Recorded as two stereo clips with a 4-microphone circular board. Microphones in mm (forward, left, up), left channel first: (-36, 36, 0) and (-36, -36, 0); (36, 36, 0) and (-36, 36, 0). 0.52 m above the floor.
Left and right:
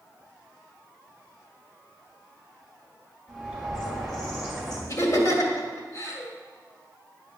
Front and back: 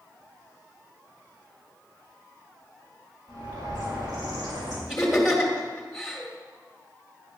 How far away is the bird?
About 2.5 m.